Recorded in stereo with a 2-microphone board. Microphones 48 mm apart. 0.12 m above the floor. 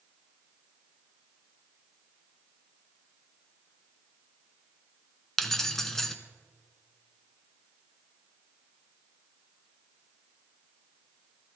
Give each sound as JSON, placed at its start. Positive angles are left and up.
{"t": 5.4, "sound": "keys jangling", "side_deg": 10, "distance_m": 0.8}